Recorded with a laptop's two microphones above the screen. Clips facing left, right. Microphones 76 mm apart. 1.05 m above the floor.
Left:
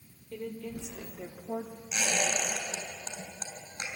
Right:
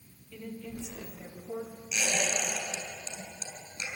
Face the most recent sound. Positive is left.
turn(degrees=55)  # may be behind; listen again after turning